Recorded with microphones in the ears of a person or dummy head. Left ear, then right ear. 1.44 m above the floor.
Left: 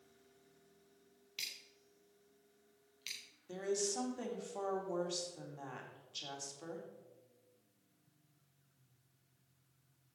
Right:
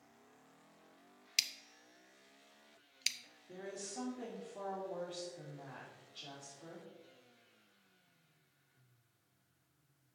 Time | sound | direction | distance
1.4 | scissors | 65° right (ahead or behind) | 0.9 m
3.5 | a woman speaking | 80° left | 2.5 m